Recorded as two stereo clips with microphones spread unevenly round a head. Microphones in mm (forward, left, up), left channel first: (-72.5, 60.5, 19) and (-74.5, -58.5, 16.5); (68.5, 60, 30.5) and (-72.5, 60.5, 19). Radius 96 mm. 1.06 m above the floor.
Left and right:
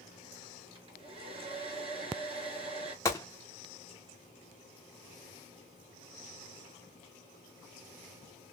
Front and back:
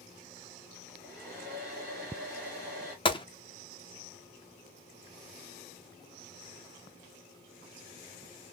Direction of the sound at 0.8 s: 125° right.